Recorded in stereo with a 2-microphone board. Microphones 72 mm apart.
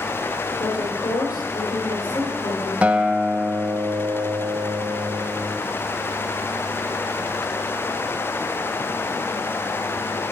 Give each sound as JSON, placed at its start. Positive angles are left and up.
{"t": 0.6, "sound": "a woman speaking", "side_deg": 65, "distance_m": 6.0}
{"t": 2.8, "sound": "a guitar", "side_deg": -15, "distance_m": 0.6}